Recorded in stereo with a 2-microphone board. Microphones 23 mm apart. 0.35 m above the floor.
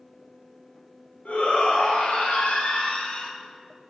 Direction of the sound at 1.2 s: 70° left (ahead or behind).